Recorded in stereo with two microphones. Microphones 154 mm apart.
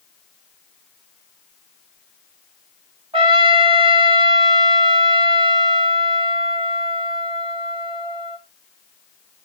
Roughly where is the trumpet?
Right.